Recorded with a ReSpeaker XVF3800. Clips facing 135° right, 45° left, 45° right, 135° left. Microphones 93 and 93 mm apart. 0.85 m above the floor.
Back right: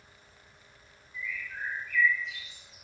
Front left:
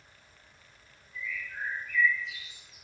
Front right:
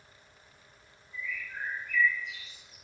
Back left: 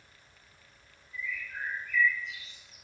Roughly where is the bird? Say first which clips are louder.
Even, even; ahead left.